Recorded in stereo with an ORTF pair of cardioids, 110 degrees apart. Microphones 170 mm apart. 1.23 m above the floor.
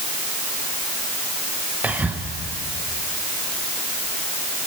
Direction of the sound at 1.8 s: 10° right.